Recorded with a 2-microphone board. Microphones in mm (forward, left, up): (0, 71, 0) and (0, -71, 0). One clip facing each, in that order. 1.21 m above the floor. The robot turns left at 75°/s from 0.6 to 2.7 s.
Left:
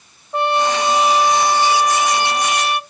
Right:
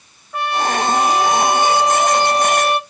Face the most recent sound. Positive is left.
turn(degrees=-110)